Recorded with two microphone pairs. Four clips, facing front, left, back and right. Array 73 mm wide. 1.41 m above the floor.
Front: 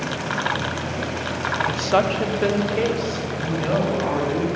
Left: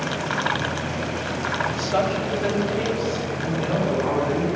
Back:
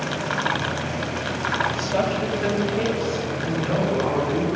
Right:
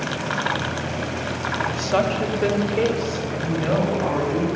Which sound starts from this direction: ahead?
A woman speaking, at 1.7 s.